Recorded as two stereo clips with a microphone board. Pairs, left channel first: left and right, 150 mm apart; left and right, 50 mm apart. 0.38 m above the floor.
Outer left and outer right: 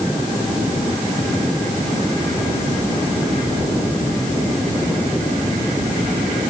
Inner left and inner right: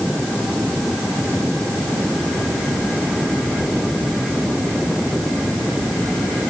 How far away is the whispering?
No whispering in this recording.